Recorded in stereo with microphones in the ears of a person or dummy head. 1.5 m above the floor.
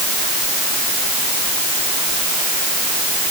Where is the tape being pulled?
I don't hear tape being pulled.